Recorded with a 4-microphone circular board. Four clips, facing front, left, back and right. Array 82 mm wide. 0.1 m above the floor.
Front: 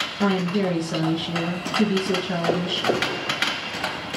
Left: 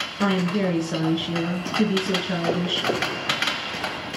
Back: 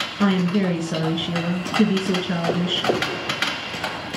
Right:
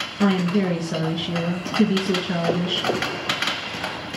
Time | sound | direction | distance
0.2 | a woman speaking | 175° left | 1.2 m